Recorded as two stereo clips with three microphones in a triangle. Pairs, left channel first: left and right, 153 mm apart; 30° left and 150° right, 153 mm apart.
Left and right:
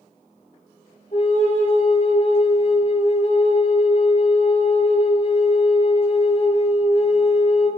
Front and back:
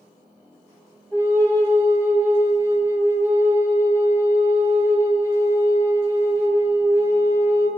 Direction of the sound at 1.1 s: 135° left.